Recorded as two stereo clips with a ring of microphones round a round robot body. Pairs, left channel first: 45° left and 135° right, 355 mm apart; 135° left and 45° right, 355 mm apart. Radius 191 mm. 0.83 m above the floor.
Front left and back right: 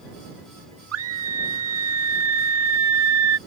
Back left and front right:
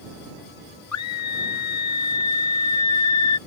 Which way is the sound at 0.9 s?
175° left.